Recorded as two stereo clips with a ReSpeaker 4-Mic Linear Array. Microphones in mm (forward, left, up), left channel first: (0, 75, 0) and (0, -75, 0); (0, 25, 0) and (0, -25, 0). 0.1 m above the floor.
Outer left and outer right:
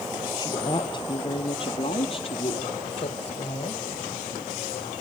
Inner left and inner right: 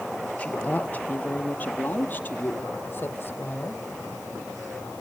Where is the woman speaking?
30° left (ahead or behind), 1.7 m; by 3.8 s 40° left (ahead or behind), 3.5 m.